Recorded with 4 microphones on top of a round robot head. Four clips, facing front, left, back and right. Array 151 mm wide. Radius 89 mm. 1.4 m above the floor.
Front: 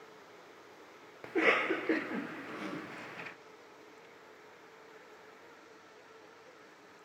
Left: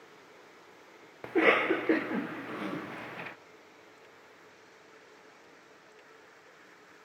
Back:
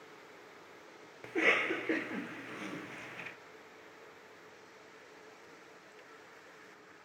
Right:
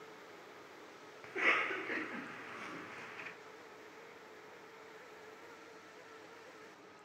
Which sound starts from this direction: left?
A cough, at 1.2 s.